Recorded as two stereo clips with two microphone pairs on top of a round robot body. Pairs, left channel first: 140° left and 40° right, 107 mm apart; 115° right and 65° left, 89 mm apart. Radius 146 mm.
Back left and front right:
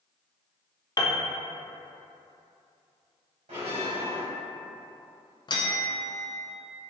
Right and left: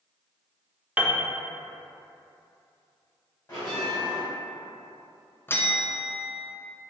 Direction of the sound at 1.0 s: 145° left.